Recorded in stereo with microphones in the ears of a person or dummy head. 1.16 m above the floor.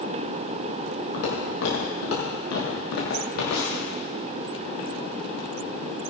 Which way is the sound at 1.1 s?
75° left (ahead or behind).